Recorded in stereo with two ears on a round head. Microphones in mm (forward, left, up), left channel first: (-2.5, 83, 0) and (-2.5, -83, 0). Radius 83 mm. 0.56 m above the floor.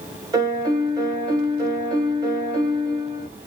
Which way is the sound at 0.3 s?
20° right (ahead or behind).